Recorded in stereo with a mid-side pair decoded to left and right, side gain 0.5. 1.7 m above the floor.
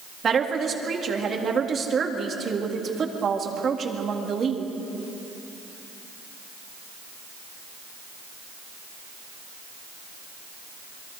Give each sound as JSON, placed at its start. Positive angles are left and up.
{"t": 0.2, "sound": "a woman speaking", "azimuth_deg": -40, "distance_m": 3.5}